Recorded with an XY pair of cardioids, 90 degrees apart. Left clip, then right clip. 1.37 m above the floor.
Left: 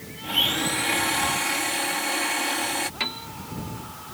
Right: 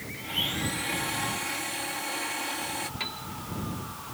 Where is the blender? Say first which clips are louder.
Left 7 dB; 55° left.